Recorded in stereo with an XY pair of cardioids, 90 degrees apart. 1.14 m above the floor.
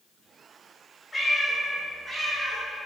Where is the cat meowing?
25° left, 1.1 m; by 2.6 s 50° right, 1.4 m.